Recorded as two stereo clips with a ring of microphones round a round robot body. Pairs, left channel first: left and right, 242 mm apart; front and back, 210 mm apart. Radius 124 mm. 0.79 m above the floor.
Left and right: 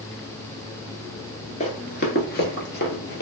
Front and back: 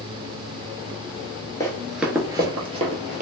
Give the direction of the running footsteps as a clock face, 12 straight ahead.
10 o'clock.